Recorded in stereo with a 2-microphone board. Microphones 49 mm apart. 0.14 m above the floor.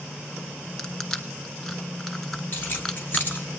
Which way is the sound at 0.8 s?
10° left (ahead or behind).